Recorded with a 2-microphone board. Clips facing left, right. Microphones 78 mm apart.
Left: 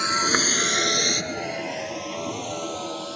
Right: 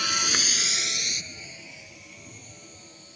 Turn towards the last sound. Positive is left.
turn(degrees=85)